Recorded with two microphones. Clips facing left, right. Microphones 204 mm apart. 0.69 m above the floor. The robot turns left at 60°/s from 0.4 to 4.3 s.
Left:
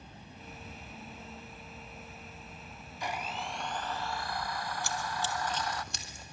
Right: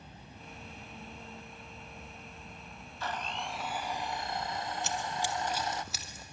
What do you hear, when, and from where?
3.0 s a blender: 30° left, 0.5 m; by 5.8 s 50° right, 0.5 m
4.8 s running footsteps: 20° right (ahead or behind), 1.0 m; by 6.2 s centre (ahead or behind), 2 m